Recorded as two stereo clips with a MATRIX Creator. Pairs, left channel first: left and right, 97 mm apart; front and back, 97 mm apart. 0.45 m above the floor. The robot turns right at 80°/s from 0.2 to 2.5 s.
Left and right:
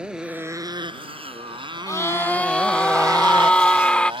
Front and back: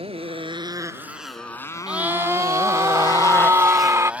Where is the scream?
110° left; by 4.1 s 160° left.